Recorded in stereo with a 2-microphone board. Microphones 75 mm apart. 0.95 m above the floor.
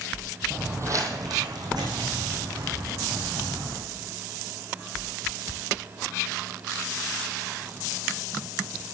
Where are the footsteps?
20° right (ahead or behind), 1.0 m; by 3.8 s 75° right (ahead or behind), 5 m.